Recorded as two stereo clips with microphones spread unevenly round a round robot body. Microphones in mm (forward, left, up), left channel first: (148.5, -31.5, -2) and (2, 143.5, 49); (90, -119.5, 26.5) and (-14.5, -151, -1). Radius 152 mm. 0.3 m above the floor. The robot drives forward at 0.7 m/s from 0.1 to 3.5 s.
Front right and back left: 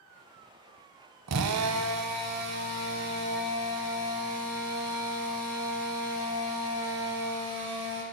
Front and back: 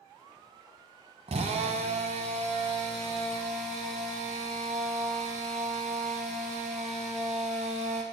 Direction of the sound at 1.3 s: 160° left.